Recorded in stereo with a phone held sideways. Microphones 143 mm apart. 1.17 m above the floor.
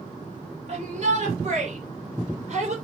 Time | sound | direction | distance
0.7 | a shout | 50° right (ahead or behind) | 3 m